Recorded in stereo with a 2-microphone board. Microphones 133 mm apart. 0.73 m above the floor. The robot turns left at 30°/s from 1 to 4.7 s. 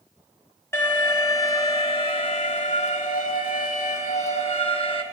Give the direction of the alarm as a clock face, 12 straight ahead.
7 o'clock.